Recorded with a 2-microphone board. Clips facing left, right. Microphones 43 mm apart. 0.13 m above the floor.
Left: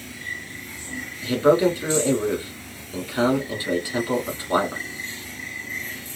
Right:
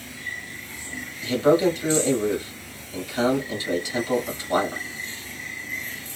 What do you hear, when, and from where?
1.2 s a man speaking: 20° left (ahead or behind), 1.3 m